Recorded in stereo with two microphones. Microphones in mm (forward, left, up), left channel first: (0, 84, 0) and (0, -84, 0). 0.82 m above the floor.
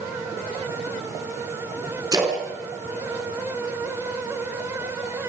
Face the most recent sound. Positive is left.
turn(degrees=-20)  # may be behind; listen again after turning